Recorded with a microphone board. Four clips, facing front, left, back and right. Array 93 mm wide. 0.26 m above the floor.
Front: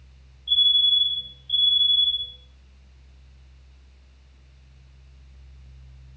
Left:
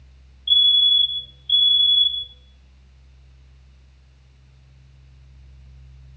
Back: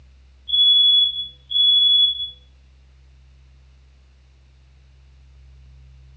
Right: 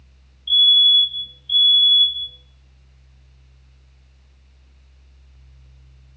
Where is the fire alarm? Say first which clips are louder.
Right 2 dB, back 4 dB; 115° right, 4 m.